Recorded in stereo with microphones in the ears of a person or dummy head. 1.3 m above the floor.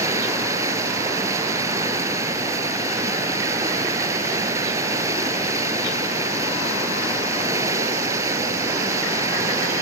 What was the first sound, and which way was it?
Running water, 20° right (ahead or behind).